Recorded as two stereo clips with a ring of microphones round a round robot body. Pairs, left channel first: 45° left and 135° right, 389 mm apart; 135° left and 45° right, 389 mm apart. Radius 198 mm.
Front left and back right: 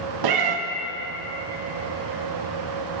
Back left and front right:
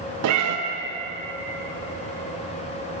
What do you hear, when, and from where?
0.2 s a cat meowing: 100° right, 0.6 m